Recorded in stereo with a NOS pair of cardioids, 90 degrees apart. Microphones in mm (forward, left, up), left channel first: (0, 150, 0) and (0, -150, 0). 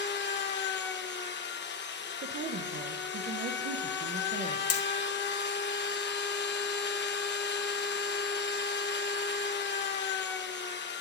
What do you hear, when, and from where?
0.0 s a machine running: 40° left, 0.7 m
2.2 s a woman speaking: 40° right, 0.6 m
4.7 s hammering: 55° left, 1.0 m